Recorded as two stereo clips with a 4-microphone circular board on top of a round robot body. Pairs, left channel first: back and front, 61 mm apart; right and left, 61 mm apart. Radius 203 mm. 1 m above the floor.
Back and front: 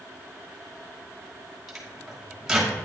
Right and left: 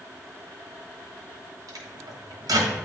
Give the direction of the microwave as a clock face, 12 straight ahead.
9 o'clock.